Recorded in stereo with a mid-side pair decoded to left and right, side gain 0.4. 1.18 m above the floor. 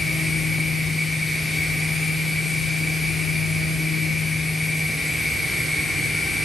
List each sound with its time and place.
0.0 s a machine running: 20° left, 1.8 m